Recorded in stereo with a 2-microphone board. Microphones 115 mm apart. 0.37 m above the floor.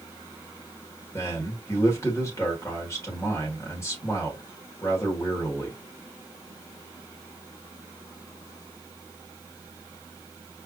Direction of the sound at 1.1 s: 25° left (ahead or behind).